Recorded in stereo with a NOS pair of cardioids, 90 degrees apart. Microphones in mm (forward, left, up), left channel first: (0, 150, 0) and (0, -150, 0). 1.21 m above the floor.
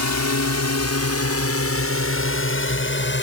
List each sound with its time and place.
0.0 s a drone: 70° left; by 3.2 s 40° left